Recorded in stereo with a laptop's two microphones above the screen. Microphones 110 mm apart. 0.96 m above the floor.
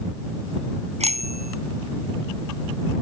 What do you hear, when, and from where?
1.0 s a bicycle bell: 80° right